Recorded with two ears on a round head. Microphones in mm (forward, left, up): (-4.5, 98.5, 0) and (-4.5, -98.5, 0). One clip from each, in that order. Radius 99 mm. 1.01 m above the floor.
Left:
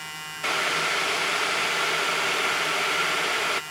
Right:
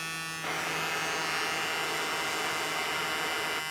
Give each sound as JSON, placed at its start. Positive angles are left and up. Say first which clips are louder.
{"t": 0.4, "sound": "boiling", "louder": "left 9 dB", "side_deg": 65, "distance_m": 0.5}